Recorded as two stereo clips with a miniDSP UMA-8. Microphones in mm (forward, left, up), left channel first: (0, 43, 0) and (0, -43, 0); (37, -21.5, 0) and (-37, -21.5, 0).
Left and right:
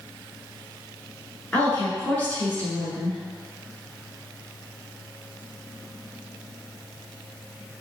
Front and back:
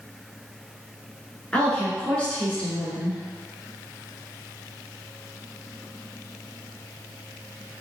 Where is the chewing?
I don't hear chewing.